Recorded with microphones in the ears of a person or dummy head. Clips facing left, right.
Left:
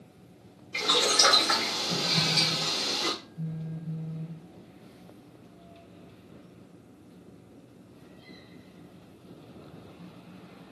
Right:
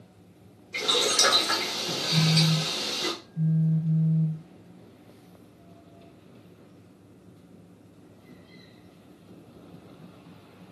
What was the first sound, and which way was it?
Boiling, 25° right (ahead or behind).